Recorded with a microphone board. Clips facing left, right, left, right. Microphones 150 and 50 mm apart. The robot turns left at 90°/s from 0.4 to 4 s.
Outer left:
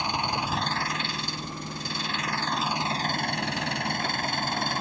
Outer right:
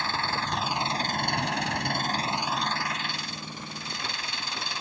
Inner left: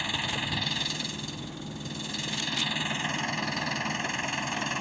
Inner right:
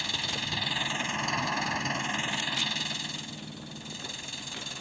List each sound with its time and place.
0.0 s an engine running: 15° left; by 4.8 s 50° left